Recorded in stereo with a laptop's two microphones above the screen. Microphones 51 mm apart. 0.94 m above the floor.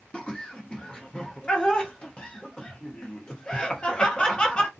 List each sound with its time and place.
0.1 s laughter: 20° left (ahead or behind), 0.7 m